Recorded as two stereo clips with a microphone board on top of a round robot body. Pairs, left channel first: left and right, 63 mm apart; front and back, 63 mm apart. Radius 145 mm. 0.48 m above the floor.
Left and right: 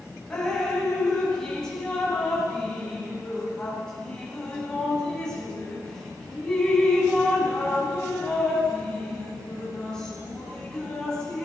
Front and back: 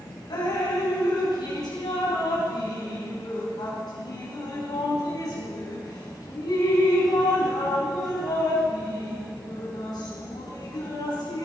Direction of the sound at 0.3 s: 10° left.